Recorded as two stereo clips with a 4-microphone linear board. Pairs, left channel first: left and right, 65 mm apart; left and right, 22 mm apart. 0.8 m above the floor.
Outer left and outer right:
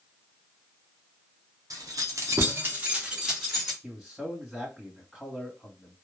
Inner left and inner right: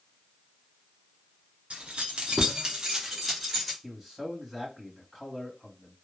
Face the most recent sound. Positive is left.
turn(degrees=0)  # may be behind; listen again after turning